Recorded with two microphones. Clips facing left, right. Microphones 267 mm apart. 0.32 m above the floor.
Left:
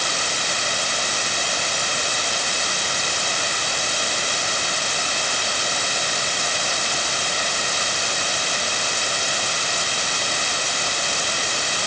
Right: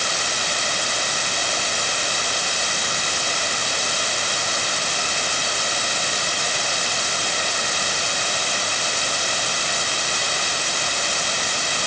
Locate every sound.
Only background noise.